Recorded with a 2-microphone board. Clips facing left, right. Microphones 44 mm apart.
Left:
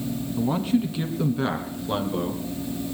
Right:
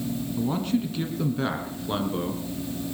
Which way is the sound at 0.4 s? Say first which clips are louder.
Left 3 dB; 15° left (ahead or behind).